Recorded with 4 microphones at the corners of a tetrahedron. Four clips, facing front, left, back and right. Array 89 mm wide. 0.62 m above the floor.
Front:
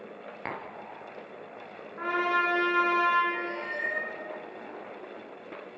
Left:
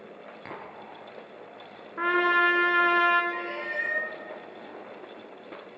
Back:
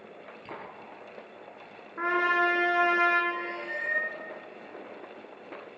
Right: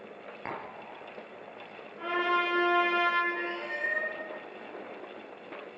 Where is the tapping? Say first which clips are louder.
Right 3 dB, front 5 dB; 20° right, 2.5 m.